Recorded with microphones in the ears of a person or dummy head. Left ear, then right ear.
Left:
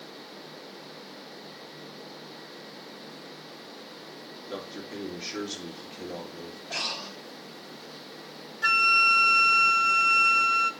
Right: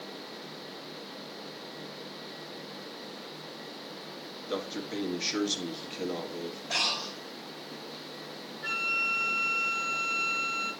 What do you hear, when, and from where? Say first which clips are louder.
4.5 s a man speaking: right 4 dB; 30° right (ahead or behind), 2.0 m
6.7 s breathing: right 3 dB; 60° right (ahead or behind), 2.5 m
8.6 s a flute: left 9 dB; 60° left (ahead or behind), 0.7 m